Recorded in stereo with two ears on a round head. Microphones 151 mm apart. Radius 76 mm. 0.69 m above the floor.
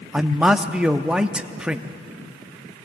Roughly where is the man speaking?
Centre.